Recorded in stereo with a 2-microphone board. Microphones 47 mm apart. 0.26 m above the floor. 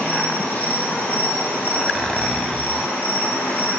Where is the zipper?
10° left (ahead or behind), 0.8 m.